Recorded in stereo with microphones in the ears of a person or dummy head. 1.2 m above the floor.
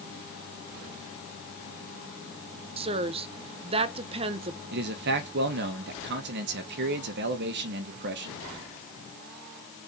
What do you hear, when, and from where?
2.8 s a woman speaking: 35° right (ahead or behind), 0.8 m
4.7 s a man speaking: 60° right (ahead or behind), 1.1 m